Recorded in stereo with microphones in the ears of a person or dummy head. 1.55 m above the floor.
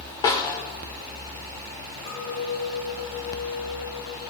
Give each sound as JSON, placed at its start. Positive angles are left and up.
{"t": 0.2, "sound": "a snare drum", "side_deg": 15, "distance_m": 1.5}
{"t": 2.1, "sound": "a clink", "side_deg": 35, "distance_m": 5.0}